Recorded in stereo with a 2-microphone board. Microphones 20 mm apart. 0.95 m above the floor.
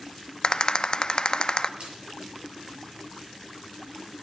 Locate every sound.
0.4 s a rattle: 45° left (ahead or behind), 0.7 m
1.8 s a splash: 55° right (ahead or behind), 6.5 m